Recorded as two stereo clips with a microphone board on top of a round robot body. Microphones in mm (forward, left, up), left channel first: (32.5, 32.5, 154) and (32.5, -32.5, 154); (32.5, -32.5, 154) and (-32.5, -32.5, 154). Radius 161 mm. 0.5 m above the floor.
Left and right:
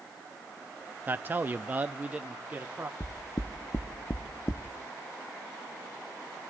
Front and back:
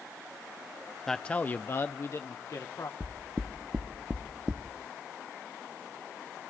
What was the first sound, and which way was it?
A man speaking, 80° right.